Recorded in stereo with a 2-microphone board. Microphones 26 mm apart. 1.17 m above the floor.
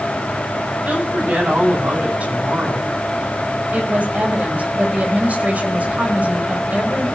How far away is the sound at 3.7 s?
About 5.5 m.